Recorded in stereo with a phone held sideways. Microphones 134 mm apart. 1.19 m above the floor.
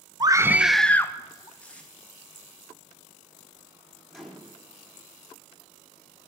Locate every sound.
0.2 s a scream: 30° right (ahead or behind), 0.5 m; by 1.5 s 30° left (ahead or behind), 0.8 m
1.6 s tape being pulled: 10° left (ahead or behind), 1.6 m
4.1 s a microwave: centre (ahead or behind), 1.9 m